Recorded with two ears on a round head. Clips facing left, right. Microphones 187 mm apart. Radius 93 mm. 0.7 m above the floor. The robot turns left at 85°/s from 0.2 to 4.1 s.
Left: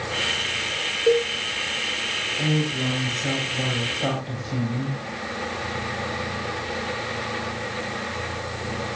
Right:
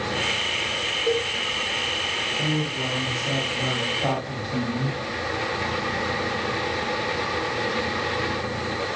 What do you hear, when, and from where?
1.1 s a cowbell: 45° left (ahead or behind), 3 m; by 1.3 s 25° left (ahead or behind), 3 m
2.4 s a woman speaking: straight behind, 5 m; by 5.0 s 35° left, 5 m